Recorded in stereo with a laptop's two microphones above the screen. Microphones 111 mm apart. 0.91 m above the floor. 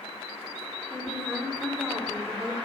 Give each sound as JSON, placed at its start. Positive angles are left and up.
{"t": 0.9, "sound": "a woman speaking", "side_deg": 0, "distance_m": 3.0}